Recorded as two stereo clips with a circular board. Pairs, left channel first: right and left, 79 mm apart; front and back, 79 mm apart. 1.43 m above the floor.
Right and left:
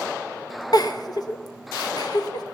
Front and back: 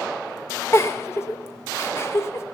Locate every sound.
0.7 s a giggle: 55° right, 0.8 m